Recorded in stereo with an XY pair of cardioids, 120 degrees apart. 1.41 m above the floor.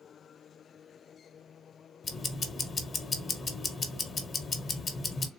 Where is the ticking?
35° left, 0.9 m.